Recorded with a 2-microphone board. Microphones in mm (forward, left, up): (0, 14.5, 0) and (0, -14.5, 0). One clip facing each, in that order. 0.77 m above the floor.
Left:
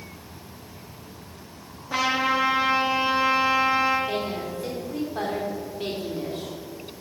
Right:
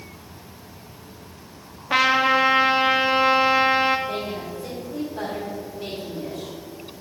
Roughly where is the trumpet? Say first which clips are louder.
Right 5 dB; right.